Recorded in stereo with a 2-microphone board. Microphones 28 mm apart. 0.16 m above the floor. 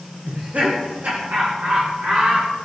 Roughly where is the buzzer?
No buzzer in this recording.